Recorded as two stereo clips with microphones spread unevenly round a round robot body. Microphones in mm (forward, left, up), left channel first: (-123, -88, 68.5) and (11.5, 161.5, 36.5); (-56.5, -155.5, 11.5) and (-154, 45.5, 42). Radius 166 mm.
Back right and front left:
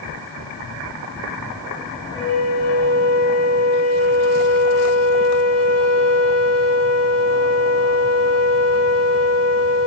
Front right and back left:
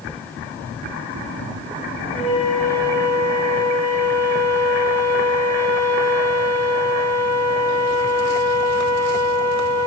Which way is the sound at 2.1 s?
125° right.